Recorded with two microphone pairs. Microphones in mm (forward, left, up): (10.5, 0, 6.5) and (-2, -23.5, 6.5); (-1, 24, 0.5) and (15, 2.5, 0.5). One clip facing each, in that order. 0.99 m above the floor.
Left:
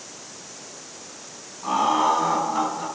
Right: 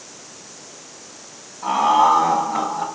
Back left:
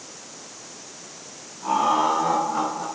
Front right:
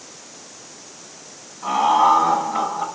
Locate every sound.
1.6 s laughter: 110° right, 6.5 m; by 2.9 s 115° right, 6.5 m